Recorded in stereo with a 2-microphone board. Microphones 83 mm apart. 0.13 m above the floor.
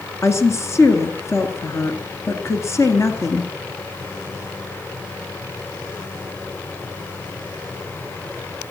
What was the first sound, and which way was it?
A woman speaking, 35° left (ahead or behind).